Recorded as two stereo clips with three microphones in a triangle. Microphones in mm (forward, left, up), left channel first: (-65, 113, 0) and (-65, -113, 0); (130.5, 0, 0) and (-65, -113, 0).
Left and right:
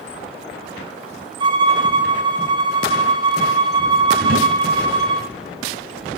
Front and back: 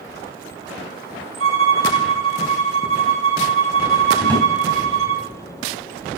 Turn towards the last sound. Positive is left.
turn(degrees=-55)